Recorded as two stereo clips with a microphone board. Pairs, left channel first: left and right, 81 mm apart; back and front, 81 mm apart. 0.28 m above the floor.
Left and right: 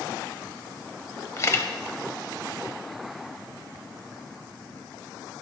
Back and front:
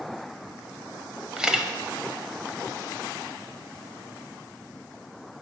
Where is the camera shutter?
75° left, 0.6 m.